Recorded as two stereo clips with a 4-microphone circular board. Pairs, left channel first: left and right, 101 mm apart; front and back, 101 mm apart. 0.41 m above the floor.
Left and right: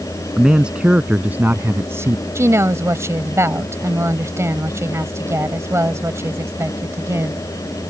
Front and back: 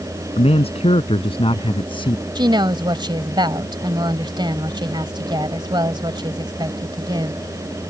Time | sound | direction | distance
0.4 | a man speaking | 5° right | ?
2.4 | a woman speaking | 150° right | ?